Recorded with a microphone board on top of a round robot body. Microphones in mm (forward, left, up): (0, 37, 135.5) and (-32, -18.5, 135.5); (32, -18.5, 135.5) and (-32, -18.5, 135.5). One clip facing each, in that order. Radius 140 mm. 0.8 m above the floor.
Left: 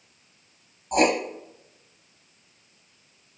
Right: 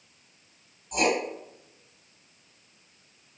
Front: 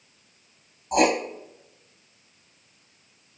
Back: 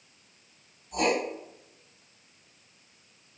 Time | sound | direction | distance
0.9 | writing | 15° left | 0.7 m